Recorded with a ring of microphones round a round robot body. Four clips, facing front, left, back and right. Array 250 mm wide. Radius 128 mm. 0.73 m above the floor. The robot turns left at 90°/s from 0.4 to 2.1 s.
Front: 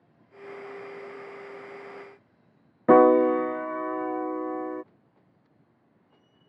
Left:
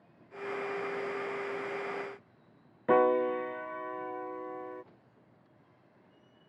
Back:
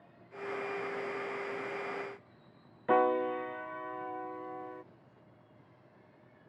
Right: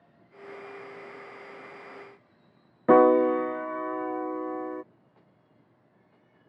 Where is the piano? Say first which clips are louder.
Right 7 dB, front 11 dB; 30° right.